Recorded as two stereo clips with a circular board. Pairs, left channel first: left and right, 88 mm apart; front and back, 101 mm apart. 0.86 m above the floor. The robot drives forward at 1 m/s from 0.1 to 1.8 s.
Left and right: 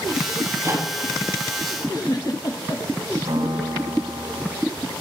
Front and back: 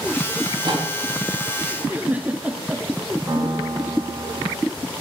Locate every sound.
0.4 s a microwave: 140° right, 6.5 m; by 0.9 s 145° right, 6.5 m
1.8 s a giggle: 110° left, 1.5 m
3.3 s a piano: 115° right, 5 m